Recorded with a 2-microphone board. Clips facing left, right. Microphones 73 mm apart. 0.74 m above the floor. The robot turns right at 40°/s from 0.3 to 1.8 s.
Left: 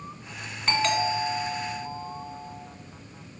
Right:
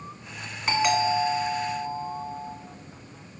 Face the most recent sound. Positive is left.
turn(degrees=-120)